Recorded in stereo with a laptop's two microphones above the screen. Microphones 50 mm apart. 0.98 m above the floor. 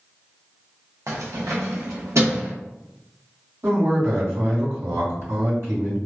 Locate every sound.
1.1 s keys jangling: 75° right (ahead or behind), 0.6 m; by 2.5 s 70° right (ahead or behind), 1.5 m
3.6 s a man speaking: 70° right (ahead or behind), 1.7 m